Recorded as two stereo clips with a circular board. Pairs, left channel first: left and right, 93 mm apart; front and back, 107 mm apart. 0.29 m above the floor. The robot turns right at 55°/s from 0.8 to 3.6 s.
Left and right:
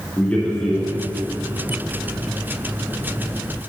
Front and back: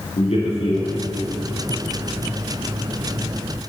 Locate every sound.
0.2 s a man speaking: 15° left, 3 m